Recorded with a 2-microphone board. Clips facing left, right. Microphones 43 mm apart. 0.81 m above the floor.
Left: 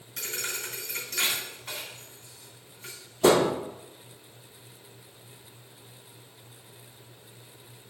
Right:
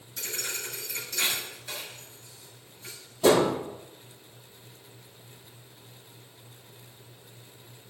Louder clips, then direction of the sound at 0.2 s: Left 1 dB; 80° left.